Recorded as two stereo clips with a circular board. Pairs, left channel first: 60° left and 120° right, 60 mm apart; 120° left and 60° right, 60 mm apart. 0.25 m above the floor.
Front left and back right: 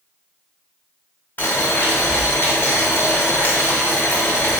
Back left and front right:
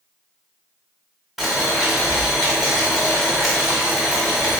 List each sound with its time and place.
1.4 s boiling: 30° left, 0.8 m